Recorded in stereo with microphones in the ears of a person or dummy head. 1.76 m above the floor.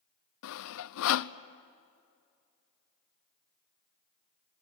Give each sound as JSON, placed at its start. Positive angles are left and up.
{"t": 0.4, "sound": "sawing", "side_deg": 75, "distance_m": 0.8}